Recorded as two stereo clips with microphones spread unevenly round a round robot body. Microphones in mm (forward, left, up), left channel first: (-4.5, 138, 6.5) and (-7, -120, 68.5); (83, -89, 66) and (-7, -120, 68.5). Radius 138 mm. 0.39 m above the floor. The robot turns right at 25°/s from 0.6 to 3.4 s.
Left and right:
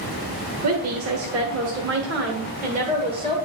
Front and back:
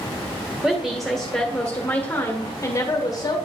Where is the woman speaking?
80° right, 1.3 m; by 3.4 s 10° right, 1.3 m.